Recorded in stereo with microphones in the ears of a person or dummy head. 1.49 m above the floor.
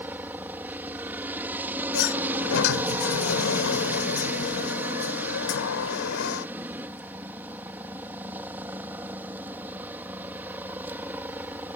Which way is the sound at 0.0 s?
10° right (ahead or behind).